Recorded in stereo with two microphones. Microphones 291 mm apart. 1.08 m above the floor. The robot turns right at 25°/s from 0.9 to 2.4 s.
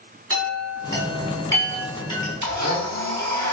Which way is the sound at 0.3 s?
50° right (ahead or behind).